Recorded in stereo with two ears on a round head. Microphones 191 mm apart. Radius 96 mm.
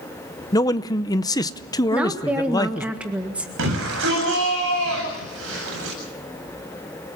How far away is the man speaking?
About 0.7 m.